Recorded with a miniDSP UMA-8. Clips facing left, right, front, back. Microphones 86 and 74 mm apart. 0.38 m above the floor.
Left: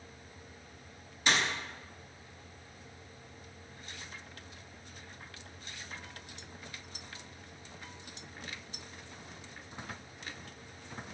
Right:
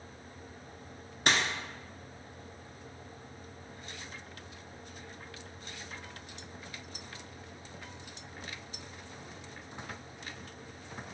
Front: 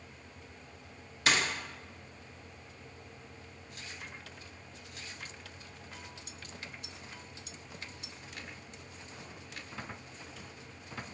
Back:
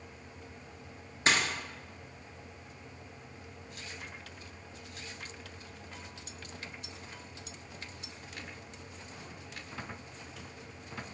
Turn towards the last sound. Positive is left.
turn(degrees=-120)